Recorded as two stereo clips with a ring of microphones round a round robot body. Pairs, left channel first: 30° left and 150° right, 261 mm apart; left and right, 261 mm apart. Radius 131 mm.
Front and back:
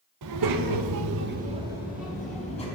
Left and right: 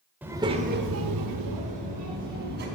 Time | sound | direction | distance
0.2 | a child speaking | 175° right | 1.3 m